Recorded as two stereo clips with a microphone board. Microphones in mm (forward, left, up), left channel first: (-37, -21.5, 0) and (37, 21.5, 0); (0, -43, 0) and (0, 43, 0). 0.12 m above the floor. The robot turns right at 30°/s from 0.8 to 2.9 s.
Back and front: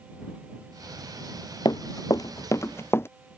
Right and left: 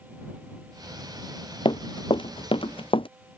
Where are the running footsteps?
115° right; by 3.1 s 90° right.